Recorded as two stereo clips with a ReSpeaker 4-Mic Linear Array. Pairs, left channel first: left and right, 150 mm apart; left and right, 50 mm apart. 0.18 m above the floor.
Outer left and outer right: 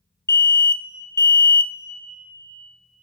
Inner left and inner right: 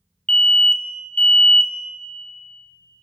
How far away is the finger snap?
No finger snap in this recording.